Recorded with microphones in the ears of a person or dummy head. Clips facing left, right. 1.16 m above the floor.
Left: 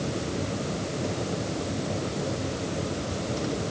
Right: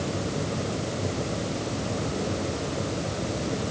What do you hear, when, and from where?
Only background noise.